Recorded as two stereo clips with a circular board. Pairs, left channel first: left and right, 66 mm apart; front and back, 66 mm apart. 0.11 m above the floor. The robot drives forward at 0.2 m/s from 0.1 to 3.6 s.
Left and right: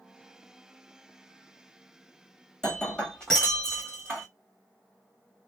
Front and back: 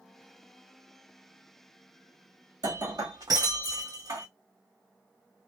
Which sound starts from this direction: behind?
Breaking glass, at 2.6 s.